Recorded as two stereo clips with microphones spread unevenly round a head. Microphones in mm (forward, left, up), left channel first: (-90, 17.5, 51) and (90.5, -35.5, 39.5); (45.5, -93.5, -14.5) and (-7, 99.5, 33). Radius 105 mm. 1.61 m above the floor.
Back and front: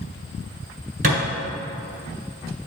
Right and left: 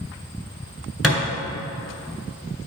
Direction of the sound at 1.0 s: 30° left.